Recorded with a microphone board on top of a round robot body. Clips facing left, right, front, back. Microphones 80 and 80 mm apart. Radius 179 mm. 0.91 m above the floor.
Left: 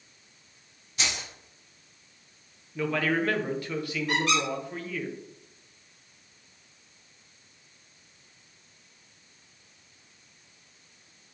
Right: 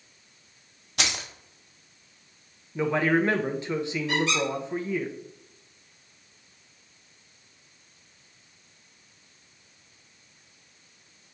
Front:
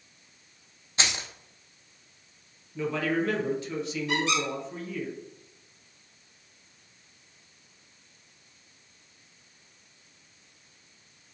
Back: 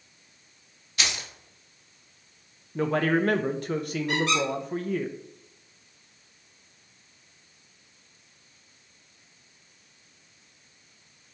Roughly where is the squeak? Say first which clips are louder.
Left 1 dB, back 2 dB; behind left.